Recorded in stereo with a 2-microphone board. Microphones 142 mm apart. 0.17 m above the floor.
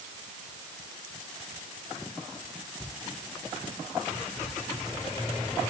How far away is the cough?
I don't hear a cough.